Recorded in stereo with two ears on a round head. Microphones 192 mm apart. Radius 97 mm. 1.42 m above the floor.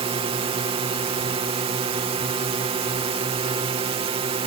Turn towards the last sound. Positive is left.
turn(degrees=-25)  # may be behind; listen again after turning